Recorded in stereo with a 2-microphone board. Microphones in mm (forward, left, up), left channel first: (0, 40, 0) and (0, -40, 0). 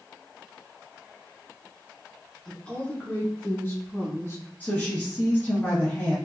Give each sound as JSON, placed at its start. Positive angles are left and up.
{"t": 2.5, "sound": "a woman speaking", "side_deg": 10, "distance_m": 1.6}
{"t": 4.6, "sound": "a woman speaking", "side_deg": 20, "distance_m": 1.7}